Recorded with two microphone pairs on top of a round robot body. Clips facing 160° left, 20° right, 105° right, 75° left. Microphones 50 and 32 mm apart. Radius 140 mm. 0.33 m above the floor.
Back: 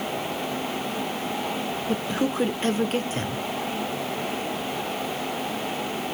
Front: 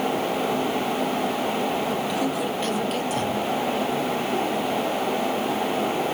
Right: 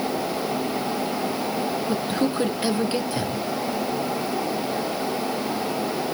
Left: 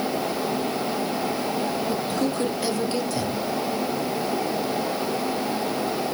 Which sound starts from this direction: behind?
A man speaking, at 1.9 s.